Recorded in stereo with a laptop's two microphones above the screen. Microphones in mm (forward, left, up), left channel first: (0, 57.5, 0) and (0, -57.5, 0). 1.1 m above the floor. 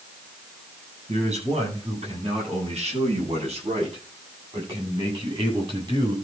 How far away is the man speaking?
About 9.5 m.